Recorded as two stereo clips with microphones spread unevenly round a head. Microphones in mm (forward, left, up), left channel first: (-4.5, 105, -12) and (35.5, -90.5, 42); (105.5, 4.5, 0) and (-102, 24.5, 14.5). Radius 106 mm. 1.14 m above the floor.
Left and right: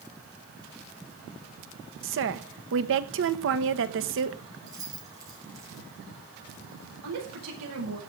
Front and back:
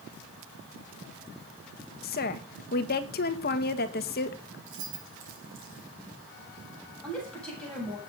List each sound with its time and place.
2.0 s a woman speaking: 50° right, 1.4 m
4.7 s keys jangling: 150° right, 5 m
7.0 s a woman speaking: 90° right, 8.5 m